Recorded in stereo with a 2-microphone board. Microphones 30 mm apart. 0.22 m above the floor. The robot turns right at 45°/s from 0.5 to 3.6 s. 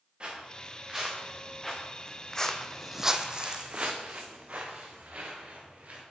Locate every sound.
0.2 s footsteps: 30° right (ahead or behind), 2.5 m; by 6.0 s 55° right (ahead or behind), 3 m